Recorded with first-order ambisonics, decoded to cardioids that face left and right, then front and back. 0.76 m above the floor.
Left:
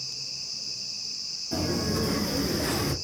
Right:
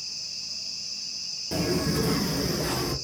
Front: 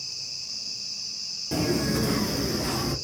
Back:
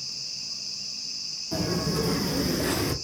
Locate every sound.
1.5 s footsteps: 35° right, 1.1 m; by 2.9 s 150° left, 0.9 m